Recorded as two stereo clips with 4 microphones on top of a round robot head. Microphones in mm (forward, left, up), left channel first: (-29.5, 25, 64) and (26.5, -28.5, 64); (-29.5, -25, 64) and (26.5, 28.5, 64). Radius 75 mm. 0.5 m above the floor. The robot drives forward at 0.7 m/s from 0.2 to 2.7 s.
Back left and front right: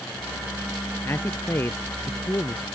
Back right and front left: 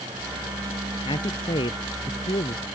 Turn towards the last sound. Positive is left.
turn(degrees=-160)